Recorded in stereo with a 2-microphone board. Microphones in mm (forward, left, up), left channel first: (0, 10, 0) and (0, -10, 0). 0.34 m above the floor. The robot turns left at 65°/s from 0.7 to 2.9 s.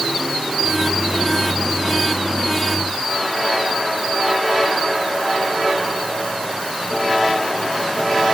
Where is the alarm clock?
I don't hear an alarm clock.